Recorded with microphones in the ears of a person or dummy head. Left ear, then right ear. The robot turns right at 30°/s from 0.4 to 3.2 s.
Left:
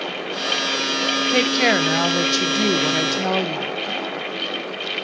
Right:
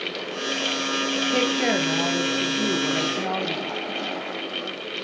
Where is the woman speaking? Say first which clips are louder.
Left 5 dB; 35° left, 0.5 m; by 3.8 s 95° left, 0.5 m.